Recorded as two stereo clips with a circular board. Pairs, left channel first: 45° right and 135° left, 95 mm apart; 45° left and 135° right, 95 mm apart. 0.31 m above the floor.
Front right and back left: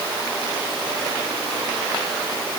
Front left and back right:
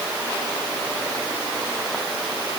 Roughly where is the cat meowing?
No cat meowing in this recording.